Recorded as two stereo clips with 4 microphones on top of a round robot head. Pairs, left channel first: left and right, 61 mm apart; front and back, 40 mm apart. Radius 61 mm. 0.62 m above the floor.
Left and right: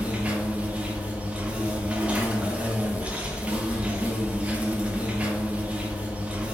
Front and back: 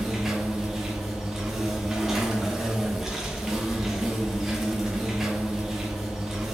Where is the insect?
115° right, 0.8 m.